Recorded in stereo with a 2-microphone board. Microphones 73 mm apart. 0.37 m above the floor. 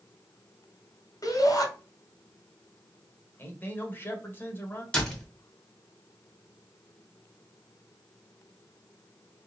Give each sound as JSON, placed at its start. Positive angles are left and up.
{"t": 1.2, "sound": "a shout", "side_deg": 55, "distance_m": 1.8}
{"t": 3.4, "sound": "a man speaking", "side_deg": 30, "distance_m": 1.2}
{"t": 4.9, "sound": "a door slam", "side_deg": 10, "distance_m": 1.7}